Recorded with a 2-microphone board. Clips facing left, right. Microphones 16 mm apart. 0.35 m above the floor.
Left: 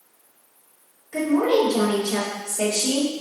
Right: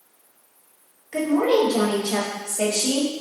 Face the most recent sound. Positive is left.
turn(degrees=-45)  # may be behind; listen again after turning